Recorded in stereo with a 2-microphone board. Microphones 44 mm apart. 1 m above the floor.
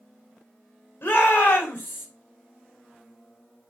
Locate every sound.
1.0 s a shout: 55° left (ahead or behind), 4.5 m